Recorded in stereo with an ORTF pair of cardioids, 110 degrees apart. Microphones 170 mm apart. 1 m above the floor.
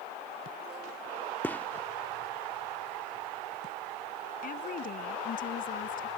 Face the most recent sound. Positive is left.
turn(degrees=55)